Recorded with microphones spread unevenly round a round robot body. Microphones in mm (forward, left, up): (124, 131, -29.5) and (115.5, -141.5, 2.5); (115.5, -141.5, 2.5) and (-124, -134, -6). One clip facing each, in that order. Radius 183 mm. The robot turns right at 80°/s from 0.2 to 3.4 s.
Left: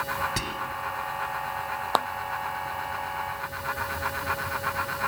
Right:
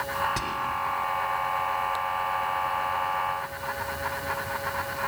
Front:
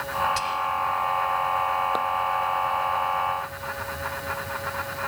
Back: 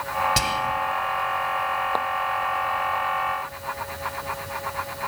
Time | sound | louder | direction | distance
0.4 | whispering | even, back 4 dB | 165° left | ?
1.9 | a clap | left 7 dB, back 2 dB | 80° left | ?